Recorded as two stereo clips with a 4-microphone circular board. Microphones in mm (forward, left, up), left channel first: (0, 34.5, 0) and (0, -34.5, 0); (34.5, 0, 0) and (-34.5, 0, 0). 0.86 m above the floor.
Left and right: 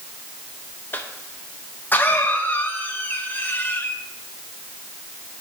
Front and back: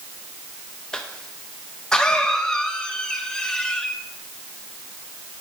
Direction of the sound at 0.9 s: 65° left.